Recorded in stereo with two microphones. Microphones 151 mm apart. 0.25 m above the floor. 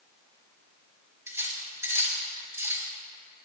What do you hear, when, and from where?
1.3 s cutlery clinking: 20° right (ahead or behind), 3 m